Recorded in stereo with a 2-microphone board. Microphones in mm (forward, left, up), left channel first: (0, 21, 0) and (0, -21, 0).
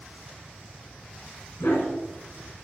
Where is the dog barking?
90° left, 1.8 m; by 2.6 s 55° left (ahead or behind), 1.8 m.